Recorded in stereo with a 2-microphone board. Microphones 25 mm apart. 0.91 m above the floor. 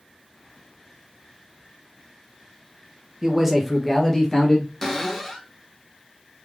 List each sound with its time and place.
3.2 s a man speaking: 25° right (ahead or behind), 0.6 m; by 4.7 s 25° left (ahead or behind), 1.2 m
4.8 s a cupboard door: 15° left (ahead or behind), 1.0 m